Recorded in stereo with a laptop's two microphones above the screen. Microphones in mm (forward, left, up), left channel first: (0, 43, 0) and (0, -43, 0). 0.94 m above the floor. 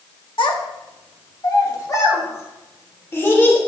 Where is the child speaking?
65° left (ahead or behind), 1.2 m; by 3.6 s 25° left (ahead or behind), 2.5 m.